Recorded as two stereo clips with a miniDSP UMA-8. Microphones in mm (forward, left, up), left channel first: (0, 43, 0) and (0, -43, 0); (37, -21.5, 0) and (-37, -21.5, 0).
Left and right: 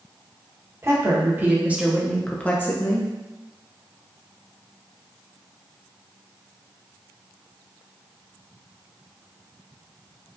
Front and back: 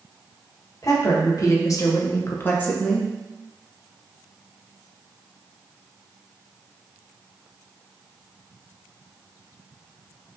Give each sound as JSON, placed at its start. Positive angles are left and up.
{"t": 0.8, "sound": "a woman speaking", "azimuth_deg": -40, "distance_m": 1.2}